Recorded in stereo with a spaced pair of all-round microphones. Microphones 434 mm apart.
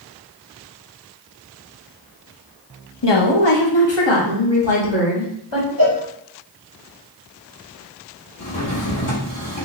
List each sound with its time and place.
3.0 s a woman speaking: 70° left (ahead or behind), 0.8 m; by 5.7 s 85° left, 2.5 m
5.8 s a cowbell: 50° left (ahead or behind), 1.1 m
8.4 s a drawer: 80° left, 1.6 m